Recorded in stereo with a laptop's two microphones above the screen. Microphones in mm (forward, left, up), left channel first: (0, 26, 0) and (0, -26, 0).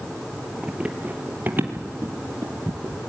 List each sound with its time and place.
0.6 s running footsteps: 15° right (ahead or behind), 1.5 m; by 2.9 s 60° right (ahead or behind), 2 m